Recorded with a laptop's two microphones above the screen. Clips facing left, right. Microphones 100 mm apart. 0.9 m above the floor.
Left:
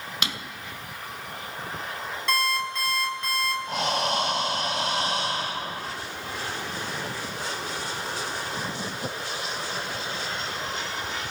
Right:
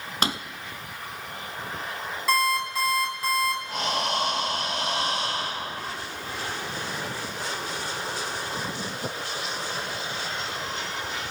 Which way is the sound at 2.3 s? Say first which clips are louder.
Right 3 dB; 5° right (ahead or behind).